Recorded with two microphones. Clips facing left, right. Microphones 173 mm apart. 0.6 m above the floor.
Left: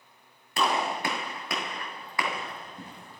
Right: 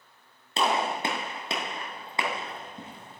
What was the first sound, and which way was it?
A gunshot, 25° right (ahead or behind).